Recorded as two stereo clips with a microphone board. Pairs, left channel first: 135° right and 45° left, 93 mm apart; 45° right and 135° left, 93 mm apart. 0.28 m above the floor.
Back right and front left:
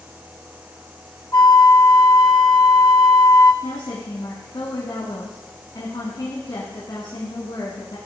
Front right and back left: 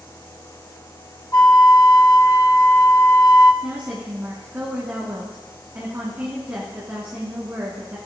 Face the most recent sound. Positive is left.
turn(degrees=-160)